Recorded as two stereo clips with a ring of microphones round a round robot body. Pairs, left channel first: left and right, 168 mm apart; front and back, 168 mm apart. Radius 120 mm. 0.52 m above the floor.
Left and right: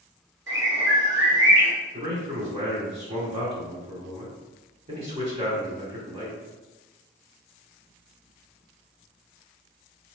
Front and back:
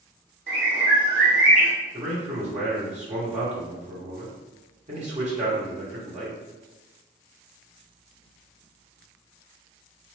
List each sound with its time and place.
0.5 s a bird: 130° right, 1.7 m
1.9 s a man speaking: 135° right, 1.3 m